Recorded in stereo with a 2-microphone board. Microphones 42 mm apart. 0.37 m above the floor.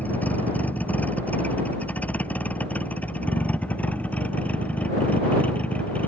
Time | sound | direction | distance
0.0 | a vehicle | 40° left (ahead or behind) | ?